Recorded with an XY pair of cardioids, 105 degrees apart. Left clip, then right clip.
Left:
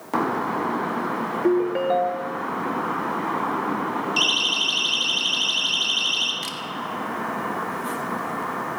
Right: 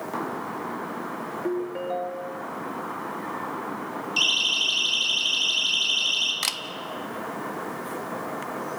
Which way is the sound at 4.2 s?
10° left.